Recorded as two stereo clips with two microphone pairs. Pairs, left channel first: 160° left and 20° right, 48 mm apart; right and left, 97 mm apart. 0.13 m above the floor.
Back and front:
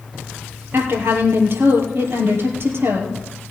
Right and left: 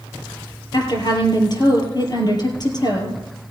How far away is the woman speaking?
About 2.5 m.